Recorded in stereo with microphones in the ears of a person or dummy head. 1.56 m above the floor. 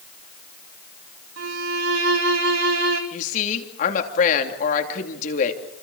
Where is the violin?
75° right (ahead or behind), 2.5 m.